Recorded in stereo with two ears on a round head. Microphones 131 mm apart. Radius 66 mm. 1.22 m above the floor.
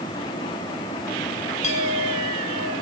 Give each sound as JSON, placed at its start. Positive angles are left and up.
{"t": 1.6, "sound": "a clink", "side_deg": 45, "distance_m": 5.5}